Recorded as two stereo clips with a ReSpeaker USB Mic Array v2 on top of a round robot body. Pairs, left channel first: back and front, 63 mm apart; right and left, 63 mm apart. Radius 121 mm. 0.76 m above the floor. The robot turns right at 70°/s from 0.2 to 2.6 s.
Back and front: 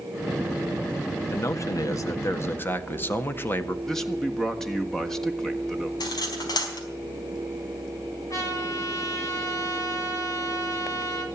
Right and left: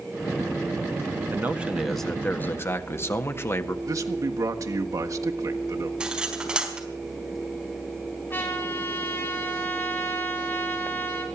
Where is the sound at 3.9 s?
100° left, 1.8 m.